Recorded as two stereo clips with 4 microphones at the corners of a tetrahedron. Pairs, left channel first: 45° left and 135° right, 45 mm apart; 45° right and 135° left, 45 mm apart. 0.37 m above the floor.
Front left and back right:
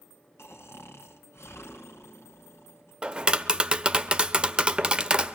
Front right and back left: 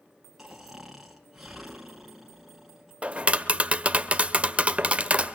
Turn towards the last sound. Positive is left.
turn(degrees=170)